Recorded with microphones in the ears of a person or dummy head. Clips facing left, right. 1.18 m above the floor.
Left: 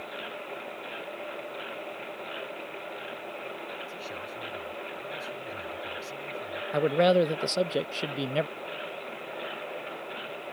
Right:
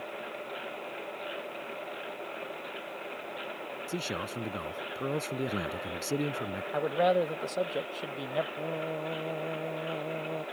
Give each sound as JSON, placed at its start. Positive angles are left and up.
{"t": 3.9, "sound": "a man speaking", "side_deg": -70}
{"t": 6.7, "sound": "a man speaking", "side_deg": 40}
{"t": 8.6, "sound": "singing", "side_deg": -85}